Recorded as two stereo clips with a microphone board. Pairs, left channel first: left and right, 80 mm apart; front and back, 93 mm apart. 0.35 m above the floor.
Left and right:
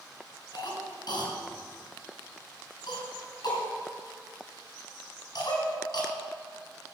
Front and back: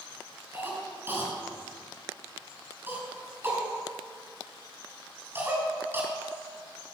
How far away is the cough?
About 5 m.